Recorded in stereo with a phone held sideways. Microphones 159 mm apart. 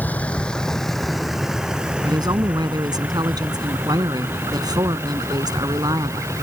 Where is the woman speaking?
25° right (ahead or behind).